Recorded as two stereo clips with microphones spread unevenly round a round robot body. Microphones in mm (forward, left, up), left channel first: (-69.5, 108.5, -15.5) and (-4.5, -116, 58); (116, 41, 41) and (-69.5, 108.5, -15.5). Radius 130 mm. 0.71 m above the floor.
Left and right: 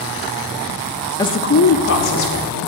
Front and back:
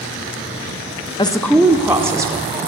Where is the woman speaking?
50° left, 0.8 m; by 2.7 s 95° left, 3 m.